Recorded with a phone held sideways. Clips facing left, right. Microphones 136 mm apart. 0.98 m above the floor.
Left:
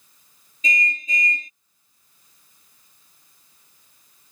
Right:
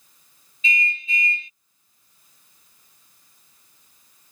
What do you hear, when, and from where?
0.6 s a car horn: 40° left (ahead or behind)